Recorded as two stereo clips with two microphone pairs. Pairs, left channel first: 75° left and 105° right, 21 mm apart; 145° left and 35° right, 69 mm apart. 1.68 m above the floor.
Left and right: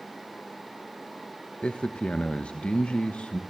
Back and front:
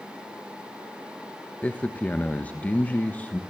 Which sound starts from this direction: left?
A man speaking, at 1.6 s.